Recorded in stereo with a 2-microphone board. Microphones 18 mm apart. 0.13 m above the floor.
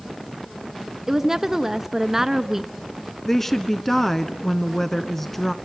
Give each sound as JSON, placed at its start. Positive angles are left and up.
{"t": 1.1, "sound": "a woman speaking", "side_deg": -25, "distance_m": 1.2}
{"t": 3.2, "sound": "a woman speaking", "side_deg": 10, "distance_m": 1.1}